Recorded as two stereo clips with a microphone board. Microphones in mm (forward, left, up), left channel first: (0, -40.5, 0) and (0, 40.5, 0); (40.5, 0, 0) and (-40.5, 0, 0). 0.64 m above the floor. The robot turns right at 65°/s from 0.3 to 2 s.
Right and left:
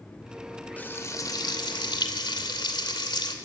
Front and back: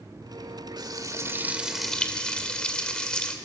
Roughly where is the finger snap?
I don't hear a finger snap.